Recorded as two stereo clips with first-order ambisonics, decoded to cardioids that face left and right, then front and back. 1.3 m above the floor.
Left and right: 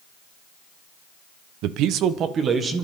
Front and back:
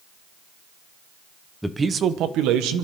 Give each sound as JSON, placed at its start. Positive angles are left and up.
{"t": 1.6, "sound": "a man speaking", "azimuth_deg": -90, "distance_m": 0.7}